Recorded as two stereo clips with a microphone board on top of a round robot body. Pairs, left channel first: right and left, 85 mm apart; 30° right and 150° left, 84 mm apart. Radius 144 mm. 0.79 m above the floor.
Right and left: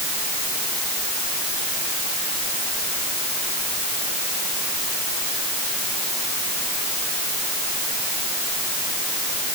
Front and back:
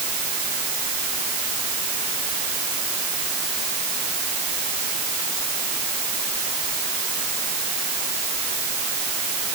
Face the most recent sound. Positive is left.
No sound to turn to.